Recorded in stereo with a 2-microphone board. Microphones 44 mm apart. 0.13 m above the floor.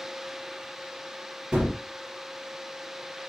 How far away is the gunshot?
About 2.5 m.